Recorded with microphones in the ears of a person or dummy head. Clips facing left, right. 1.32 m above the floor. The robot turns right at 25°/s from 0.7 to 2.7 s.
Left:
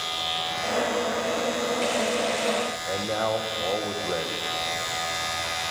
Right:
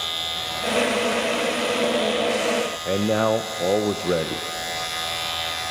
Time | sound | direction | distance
2.9 | a man speaking | 50° right (ahead or behind) | 0.8 m